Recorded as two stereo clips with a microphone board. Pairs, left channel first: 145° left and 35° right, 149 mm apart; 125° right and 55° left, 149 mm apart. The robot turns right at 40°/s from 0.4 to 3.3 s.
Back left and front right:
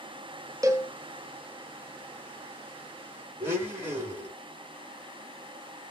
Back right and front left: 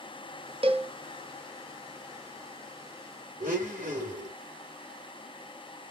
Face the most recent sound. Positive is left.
turn(degrees=40)